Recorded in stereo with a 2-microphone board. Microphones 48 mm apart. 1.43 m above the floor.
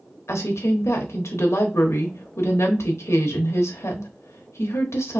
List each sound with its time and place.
0.3 s a woman speaking: 85° left, 0.9 m